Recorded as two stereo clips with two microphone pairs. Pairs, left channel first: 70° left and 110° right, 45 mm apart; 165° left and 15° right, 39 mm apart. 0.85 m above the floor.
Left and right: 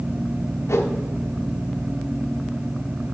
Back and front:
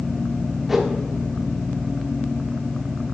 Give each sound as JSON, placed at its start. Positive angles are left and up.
{"t": 0.7, "sound": "a whoosh", "azimuth_deg": 70, "distance_m": 1.1}